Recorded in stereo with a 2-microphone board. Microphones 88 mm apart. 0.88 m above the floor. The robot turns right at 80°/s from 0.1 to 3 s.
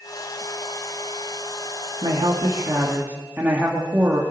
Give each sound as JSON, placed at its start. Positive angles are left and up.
{"t": 2.0, "sound": "a woman speaking", "azimuth_deg": -100, "distance_m": 2.0}